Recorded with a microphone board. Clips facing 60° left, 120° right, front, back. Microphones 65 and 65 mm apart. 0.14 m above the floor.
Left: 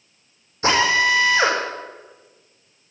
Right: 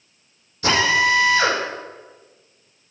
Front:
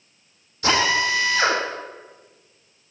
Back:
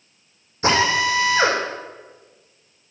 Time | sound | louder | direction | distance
0.6 | a drill | even, back 2 dB | 120° left | 6 m